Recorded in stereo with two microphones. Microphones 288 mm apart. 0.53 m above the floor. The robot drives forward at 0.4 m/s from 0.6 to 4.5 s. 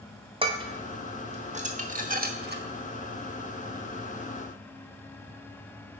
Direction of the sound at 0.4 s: 20° right (ahead or behind).